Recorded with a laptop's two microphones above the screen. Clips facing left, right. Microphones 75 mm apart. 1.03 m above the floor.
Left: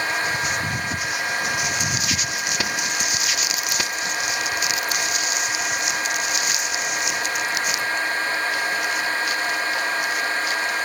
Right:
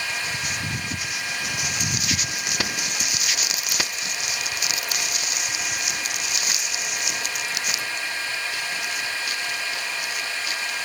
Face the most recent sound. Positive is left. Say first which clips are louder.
# left 6 dB
turn(degrees=45)  # may be behind; listen again after turning